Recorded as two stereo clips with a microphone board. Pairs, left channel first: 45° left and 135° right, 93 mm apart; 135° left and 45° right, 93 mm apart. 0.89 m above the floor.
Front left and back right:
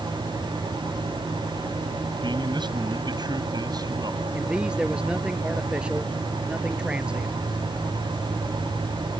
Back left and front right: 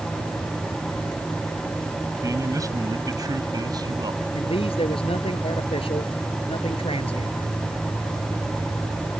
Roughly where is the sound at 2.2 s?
Right.